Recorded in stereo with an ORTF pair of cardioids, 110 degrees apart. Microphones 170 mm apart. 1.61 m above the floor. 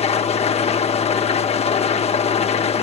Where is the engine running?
40° left, 1.4 m.